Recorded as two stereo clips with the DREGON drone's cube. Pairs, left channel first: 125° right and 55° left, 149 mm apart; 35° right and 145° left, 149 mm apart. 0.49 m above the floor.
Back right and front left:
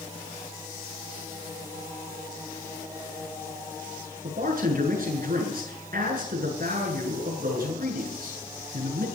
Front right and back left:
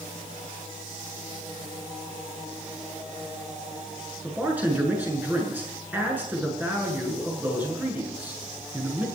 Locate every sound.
4.2 s a man speaking: 65° left, 7.5 m